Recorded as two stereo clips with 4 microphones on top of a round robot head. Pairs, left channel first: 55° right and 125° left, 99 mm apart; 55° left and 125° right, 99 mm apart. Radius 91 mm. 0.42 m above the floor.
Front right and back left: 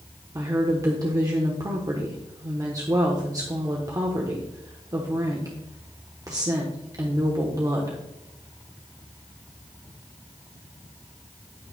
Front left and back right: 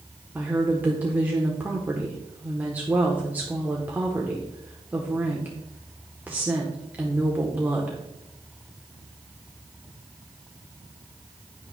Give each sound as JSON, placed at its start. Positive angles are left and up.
{"t": 0.3, "sound": "a woman speaking", "azimuth_deg": 165, "distance_m": 1.3}